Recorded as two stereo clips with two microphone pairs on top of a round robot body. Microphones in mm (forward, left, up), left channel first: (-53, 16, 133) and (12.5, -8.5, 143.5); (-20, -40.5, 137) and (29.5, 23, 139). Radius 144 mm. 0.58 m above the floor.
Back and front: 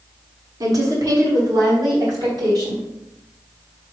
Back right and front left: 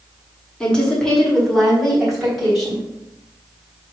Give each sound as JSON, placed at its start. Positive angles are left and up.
{"t": 0.6, "sound": "a woman speaking", "azimuth_deg": -50, "distance_m": 1.8}